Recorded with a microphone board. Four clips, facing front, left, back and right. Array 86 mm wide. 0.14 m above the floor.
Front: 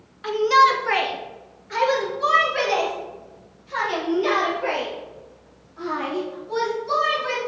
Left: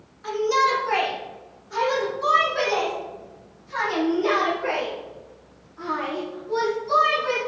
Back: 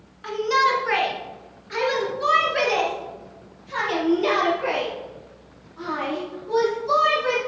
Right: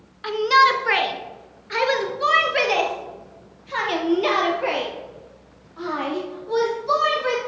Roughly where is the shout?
Right.